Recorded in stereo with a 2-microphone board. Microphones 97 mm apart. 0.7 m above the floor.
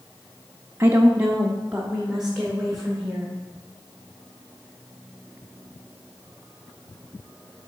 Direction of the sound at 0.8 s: 30° right (ahead or behind).